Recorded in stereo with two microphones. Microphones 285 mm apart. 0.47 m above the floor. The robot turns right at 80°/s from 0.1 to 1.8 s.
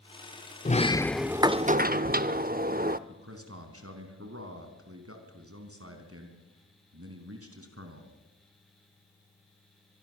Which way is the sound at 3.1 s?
55° right (ahead or behind).